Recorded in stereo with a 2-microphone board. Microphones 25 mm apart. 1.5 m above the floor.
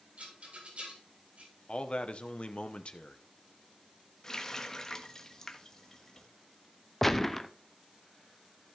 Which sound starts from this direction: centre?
A gunshot, at 7.0 s.